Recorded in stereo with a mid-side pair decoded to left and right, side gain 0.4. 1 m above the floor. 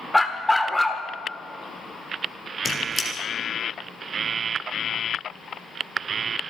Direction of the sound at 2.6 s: 40° left.